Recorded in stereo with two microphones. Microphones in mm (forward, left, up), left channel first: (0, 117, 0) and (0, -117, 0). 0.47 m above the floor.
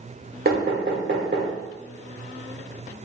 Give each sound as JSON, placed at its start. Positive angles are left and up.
{"t": 0.5, "sound": "knocking", "side_deg": -40, "distance_m": 1.3}